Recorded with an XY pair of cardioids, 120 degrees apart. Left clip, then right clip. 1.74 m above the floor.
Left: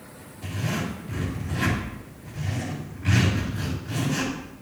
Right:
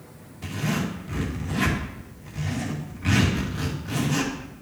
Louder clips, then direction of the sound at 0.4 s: Right 2 dB; 45° right.